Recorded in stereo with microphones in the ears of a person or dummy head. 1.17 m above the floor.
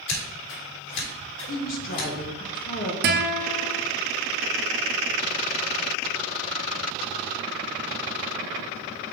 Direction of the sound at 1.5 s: 45° left (ahead or behind).